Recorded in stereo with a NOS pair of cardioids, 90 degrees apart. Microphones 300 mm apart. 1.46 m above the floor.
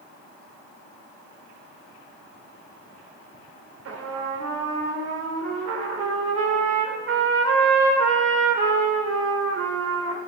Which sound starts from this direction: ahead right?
A trumpet, at 3.9 s.